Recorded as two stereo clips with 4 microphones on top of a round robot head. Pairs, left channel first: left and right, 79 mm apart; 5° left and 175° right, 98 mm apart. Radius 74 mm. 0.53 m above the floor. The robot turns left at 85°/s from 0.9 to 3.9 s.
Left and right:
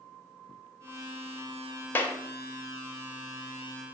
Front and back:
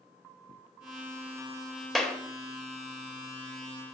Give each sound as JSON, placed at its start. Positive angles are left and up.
{"t": 1.9, "sound": "a clap", "azimuth_deg": 85, "distance_m": 0.7}